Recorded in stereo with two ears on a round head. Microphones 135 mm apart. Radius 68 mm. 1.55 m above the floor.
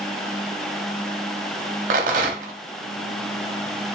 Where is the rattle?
55° right (ahead or behind), 0.6 m.